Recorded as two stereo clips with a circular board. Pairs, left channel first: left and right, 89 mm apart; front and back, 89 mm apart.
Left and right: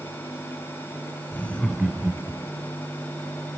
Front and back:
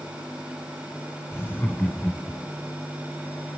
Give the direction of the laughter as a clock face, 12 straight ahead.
10 o'clock.